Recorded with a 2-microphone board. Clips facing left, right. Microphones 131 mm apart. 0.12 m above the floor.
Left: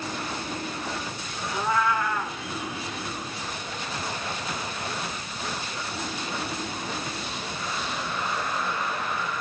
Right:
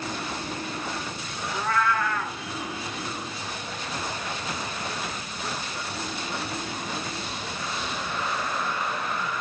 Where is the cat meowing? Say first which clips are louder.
Left 1 dB; 15° left (ahead or behind), 0.8 m.